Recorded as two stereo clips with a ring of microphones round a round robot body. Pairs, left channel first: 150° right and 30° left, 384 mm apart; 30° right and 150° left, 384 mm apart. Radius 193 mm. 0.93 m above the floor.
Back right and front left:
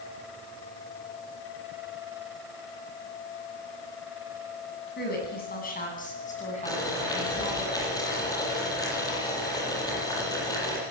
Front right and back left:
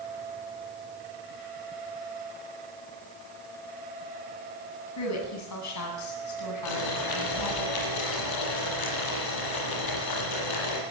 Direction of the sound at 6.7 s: 70° right.